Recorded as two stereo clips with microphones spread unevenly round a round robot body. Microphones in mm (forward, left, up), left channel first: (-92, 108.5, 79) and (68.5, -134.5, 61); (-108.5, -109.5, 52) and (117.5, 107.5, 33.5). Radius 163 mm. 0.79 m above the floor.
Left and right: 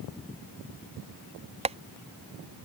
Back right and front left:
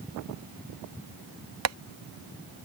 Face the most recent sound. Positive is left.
turn(degrees=10)